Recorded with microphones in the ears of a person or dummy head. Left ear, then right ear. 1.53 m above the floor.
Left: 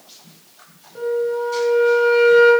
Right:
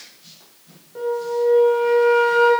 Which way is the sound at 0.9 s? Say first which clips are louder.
Left 1 dB; 10° right (ahead or behind).